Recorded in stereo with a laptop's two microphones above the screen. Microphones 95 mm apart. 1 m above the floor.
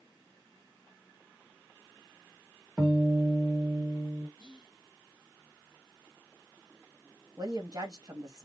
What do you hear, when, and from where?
2.8 s a guitar: 20° right (ahead or behind), 1.4 m
4.4 s whispering: 50° left (ahead or behind), 1.3 m
7.4 s a woman speaking: 35° right (ahead or behind), 1.8 m